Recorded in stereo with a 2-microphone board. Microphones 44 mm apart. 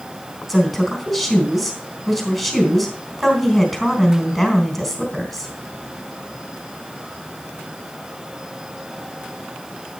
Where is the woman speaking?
5° right (ahead or behind), 3 m.